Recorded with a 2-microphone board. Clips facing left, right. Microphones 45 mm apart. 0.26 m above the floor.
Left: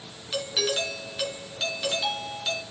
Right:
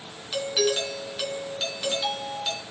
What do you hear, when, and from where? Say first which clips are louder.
0.3 s a doorbell: right 3 dB; centre (ahead or behind), 3.5 m